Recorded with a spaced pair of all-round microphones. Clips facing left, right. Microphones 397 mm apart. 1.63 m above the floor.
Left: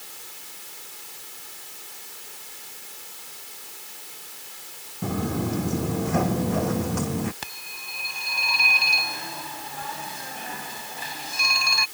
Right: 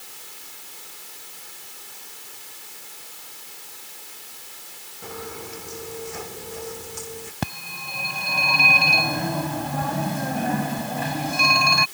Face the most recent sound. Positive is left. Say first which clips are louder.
# right 13 dB
turn(degrees=-70)  # may be behind; listen again after turning